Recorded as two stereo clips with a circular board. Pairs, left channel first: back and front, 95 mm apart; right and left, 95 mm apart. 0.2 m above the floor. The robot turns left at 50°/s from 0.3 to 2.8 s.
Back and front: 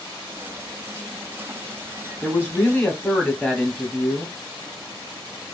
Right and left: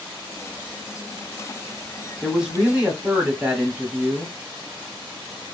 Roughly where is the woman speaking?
Behind.